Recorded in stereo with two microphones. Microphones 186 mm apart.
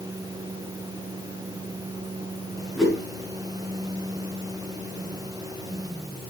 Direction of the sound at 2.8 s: Centre (ahead or behind).